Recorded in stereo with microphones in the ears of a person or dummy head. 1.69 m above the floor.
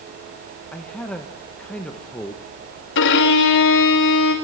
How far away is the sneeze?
I don't hear a sneeze.